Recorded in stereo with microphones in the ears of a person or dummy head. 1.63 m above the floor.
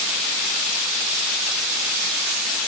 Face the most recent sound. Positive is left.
No sound to turn to.